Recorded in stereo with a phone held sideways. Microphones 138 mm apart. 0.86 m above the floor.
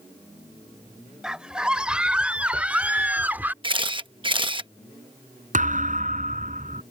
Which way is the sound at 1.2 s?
5° right (ahead or behind).